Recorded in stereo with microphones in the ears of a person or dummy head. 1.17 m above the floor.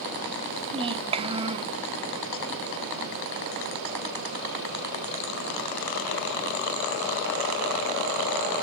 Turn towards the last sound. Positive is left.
turn(degrees=-25)  # may be behind; listen again after turning